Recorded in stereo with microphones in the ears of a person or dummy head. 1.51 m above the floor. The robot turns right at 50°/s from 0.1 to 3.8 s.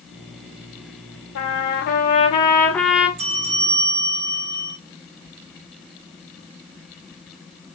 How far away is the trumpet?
About 0.9 m.